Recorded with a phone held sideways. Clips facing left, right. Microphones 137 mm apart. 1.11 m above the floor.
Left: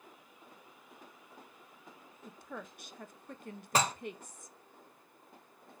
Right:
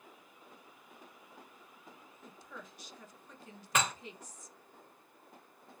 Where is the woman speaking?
55° left (ahead or behind), 0.6 m.